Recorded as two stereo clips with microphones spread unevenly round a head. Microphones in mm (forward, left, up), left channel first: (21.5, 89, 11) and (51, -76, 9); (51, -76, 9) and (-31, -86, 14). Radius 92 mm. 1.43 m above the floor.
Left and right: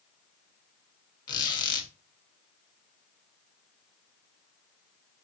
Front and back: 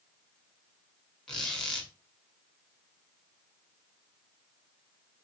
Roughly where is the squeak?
Left.